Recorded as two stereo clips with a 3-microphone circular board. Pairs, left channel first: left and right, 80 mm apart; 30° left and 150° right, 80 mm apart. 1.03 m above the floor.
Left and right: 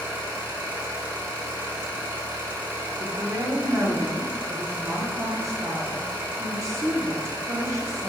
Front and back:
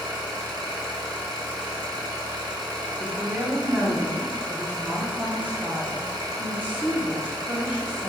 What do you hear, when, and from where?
0.0 s an engine running: 150° right, 1.0 m
3.0 s a woman speaking: 90° right, 0.7 m